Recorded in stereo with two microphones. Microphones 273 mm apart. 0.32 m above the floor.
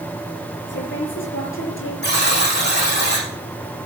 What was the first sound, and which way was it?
A woman speaking, 45° left (ahead or behind).